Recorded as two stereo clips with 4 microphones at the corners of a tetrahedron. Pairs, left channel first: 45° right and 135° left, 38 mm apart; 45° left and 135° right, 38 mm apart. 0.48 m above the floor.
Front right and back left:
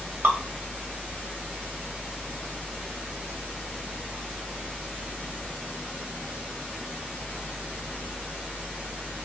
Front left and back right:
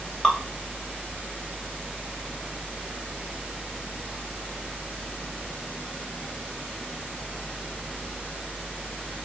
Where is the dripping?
120° left, 2 m.